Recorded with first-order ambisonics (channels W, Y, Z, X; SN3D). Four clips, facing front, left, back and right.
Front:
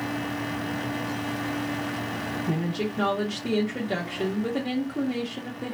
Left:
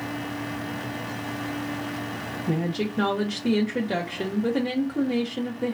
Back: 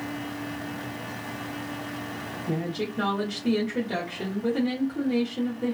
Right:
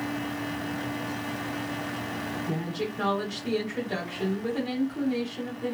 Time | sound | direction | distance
2.5 | a woman speaking | 75° left | 0.7 m